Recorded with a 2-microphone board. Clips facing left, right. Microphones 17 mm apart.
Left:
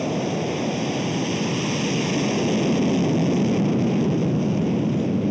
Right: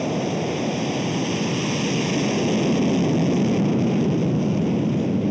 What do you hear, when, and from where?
0.0 s an aircraft: centre (ahead or behind)